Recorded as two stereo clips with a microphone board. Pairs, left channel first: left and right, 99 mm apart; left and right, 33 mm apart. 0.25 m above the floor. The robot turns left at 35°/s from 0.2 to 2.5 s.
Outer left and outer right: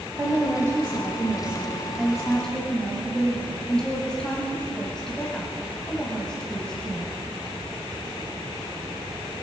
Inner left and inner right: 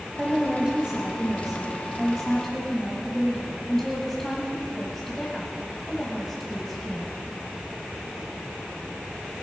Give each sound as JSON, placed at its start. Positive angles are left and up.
{"t": 0.2, "sound": "a woman speaking", "azimuth_deg": -115, "distance_m": 1.7}